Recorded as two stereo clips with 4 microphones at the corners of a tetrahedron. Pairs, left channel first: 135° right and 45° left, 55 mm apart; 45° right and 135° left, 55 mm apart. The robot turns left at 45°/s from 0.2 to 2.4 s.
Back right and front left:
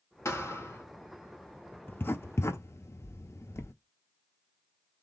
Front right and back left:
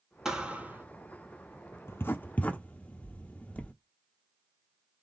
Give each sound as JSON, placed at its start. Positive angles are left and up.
{"t": 0.2, "sound": "a thud", "azimuth_deg": -145, "distance_m": 0.9}
{"t": 1.9, "sound": "writing", "azimuth_deg": -85, "distance_m": 0.5}